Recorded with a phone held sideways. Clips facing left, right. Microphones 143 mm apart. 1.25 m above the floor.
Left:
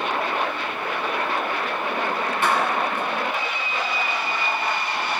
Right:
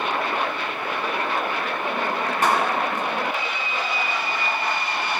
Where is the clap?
45° right (ahead or behind), 8 m.